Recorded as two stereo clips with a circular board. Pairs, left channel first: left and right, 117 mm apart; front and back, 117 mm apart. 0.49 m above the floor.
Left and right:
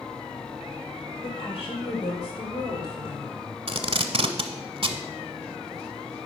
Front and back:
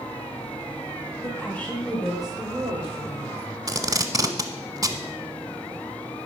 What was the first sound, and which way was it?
A woman speaking, 65° left.